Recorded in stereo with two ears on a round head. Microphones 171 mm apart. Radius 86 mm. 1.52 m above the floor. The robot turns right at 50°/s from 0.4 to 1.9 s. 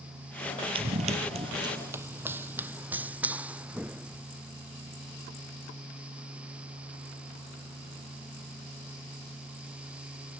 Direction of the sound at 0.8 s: 30° right (ahead or behind).